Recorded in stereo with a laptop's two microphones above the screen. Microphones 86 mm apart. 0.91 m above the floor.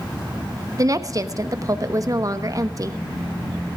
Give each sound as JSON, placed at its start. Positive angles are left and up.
{"t": 0.8, "sound": "a woman speaking", "side_deg": -40, "distance_m": 1.0}